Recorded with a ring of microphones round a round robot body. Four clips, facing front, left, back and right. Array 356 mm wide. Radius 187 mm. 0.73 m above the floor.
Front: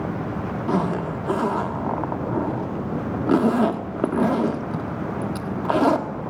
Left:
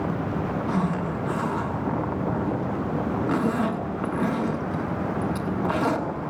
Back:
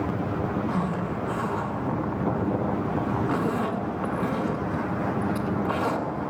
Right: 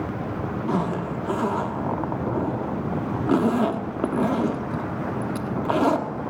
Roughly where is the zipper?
Ahead right.